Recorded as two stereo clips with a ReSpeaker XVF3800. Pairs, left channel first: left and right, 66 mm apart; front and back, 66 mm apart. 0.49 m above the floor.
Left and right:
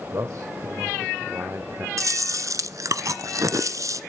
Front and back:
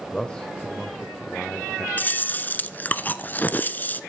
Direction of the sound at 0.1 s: 75° right.